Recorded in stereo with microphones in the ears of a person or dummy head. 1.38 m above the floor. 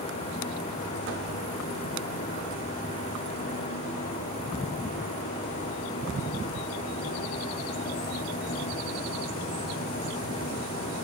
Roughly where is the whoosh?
Right.